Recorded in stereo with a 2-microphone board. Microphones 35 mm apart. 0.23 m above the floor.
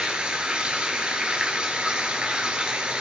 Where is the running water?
30° right (ahead or behind), 1.0 m.